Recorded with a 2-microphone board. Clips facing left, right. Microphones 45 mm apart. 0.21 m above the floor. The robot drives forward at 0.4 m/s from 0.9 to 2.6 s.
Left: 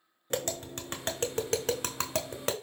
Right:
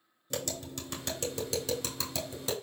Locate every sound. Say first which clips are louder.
0.3 s tapping: left 4 dB; 40° left (ahead or behind), 1.2 m; by 2.5 s 60° left (ahead or behind), 0.9 m